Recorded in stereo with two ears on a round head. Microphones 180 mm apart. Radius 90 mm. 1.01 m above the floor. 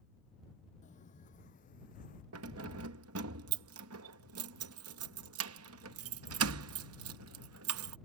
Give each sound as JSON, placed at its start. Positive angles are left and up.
{"t": 0.8, "sound": "footsteps", "side_deg": 40}
{"t": 2.3, "sound": "keys jangling", "side_deg": -80}